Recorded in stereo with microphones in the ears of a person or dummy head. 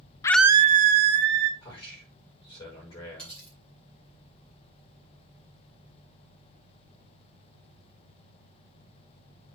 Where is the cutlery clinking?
5° left (ahead or behind), 5 m.